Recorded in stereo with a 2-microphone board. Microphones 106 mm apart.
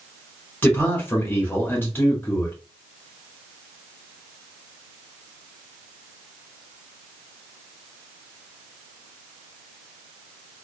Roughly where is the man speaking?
Centre.